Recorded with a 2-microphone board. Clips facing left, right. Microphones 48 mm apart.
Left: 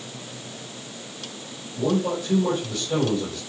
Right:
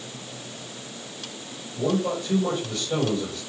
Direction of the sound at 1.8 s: 5° left (ahead or behind).